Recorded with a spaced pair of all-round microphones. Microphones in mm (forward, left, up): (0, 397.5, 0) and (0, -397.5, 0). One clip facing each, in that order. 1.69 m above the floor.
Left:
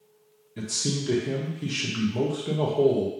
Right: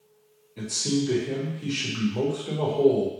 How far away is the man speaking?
About 0.8 m.